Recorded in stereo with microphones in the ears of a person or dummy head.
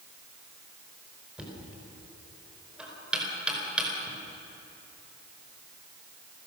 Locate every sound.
1.4 s knocking: centre (ahead or behind), 4.5 m